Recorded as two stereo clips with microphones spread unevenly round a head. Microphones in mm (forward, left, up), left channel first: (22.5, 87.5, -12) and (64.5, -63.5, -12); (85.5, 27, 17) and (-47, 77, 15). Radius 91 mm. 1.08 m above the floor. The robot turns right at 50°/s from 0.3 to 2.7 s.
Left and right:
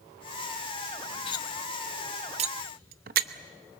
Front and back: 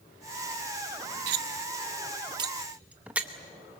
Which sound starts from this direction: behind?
Cutlery clinking, at 1.3 s.